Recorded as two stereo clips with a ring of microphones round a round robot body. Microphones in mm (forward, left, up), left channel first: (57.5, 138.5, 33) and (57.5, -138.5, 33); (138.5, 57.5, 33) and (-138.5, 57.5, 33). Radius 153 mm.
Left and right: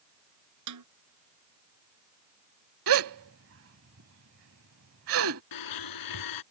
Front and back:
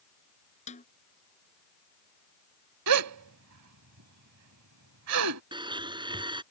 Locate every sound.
0.7 s a snare drum: 70° right
2.9 s a gasp: 140° right
5.5 s a blender: 105° left